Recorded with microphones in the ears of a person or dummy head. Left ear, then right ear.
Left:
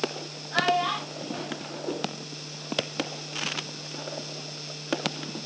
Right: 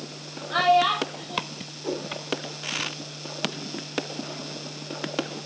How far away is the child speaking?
About 3.5 m.